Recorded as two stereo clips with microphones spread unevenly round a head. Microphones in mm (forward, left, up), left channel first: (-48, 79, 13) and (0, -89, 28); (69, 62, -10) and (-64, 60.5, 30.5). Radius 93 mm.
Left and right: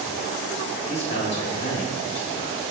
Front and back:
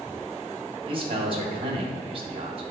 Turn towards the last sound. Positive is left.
turn(degrees=130)